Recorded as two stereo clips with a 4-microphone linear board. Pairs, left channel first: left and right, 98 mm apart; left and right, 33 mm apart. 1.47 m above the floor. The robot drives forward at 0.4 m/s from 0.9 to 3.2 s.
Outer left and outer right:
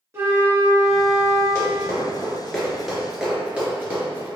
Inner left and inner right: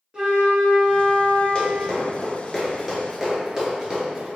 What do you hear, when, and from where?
0.1 s a flute: 30° right (ahead or behind), 1.1 m; by 1.4 s 35° right (ahead or behind), 0.9 m
1.6 s running footsteps: 25° left (ahead or behind), 1.5 m; by 4.3 s 25° right (ahead or behind), 1.6 m